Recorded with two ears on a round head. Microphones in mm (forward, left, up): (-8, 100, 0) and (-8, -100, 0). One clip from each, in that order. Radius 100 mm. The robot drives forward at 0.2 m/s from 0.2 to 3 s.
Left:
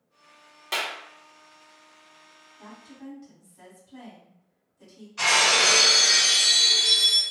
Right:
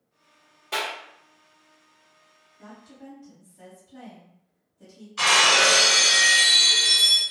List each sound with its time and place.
0.7 s a clap: 55° left (ahead or behind), 1.3 m; by 0.9 s 50° left (ahead or behind), 1.3 m
2.6 s a woman speaking: 80° left, 1.7 m; by 5.1 s 75° left (ahead or behind), 1.7 m
5.2 s breaking glass: 15° right (ahead or behind), 1.9 m